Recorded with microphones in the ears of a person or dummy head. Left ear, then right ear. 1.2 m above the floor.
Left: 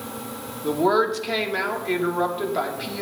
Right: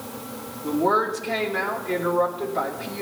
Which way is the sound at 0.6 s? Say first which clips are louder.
Left 1 dB; 30° left (ahead or behind).